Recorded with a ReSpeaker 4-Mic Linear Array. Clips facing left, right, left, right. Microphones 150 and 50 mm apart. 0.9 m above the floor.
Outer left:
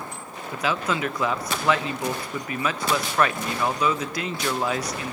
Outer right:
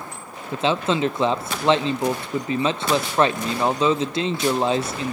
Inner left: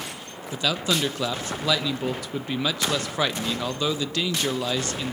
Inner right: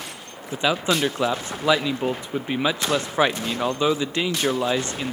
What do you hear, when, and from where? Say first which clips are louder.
0.5 s a man speaking: outer right 5 dB, inner right 3 dB; 25° right (ahead or behind), 0.7 m